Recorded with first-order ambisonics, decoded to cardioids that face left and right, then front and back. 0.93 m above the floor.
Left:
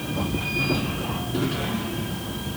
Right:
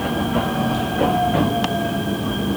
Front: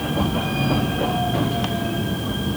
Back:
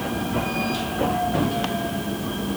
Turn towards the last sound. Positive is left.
No sound to turn to.